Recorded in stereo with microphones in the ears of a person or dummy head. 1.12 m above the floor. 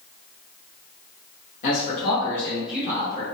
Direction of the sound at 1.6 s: 50° left (ahead or behind).